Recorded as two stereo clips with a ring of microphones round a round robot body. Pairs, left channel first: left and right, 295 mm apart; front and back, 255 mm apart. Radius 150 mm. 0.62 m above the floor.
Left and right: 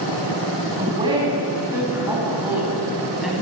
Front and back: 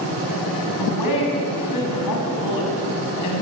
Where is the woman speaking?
15° right, 6 m; by 3.4 s straight ahead, 5.5 m.